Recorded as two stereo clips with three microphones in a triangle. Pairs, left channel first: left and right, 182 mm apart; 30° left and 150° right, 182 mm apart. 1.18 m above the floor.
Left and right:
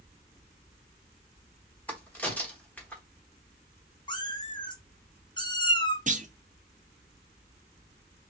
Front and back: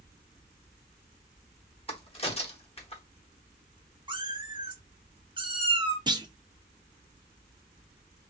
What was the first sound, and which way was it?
A crack, 15° left.